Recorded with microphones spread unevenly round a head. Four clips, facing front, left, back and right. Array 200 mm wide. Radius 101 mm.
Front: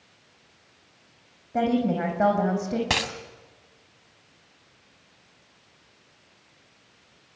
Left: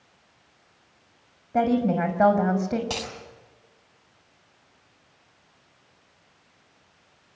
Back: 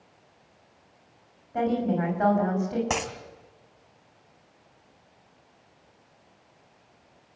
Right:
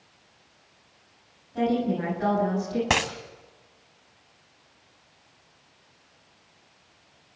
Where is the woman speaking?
65° left, 6 m.